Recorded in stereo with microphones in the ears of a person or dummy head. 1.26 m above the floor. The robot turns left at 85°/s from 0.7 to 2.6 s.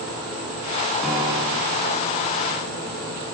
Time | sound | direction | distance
1.0 | a piano | 10° left | 6.5 m